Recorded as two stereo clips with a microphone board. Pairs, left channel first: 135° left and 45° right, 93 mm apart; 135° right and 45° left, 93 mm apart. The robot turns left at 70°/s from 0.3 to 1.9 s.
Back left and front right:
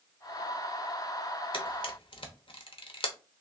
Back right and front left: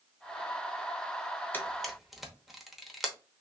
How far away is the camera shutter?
About 0.8 m.